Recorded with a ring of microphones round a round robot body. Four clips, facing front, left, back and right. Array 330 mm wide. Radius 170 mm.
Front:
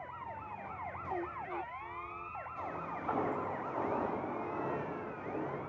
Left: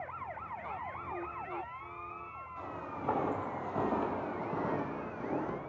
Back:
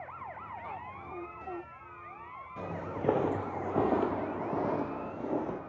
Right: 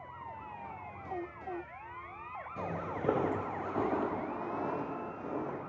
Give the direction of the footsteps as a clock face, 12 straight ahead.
4 o'clock.